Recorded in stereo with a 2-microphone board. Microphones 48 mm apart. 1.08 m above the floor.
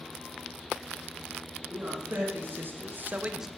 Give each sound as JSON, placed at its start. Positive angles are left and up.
{"t": 1.7, "sound": "a man speaking", "side_deg": -45, "distance_m": 2.5}